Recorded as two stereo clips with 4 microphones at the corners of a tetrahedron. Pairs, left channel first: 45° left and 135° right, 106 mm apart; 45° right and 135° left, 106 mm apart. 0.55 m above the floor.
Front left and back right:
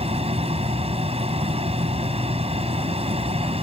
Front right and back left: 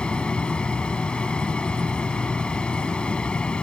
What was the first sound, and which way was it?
An aircraft, 125° right.